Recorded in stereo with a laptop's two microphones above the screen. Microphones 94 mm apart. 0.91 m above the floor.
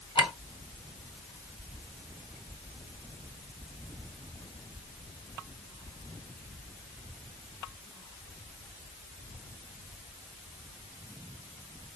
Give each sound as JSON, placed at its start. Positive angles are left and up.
{"t": 0.1, "sound": "a clink", "side_deg": 85, "distance_m": 2.0}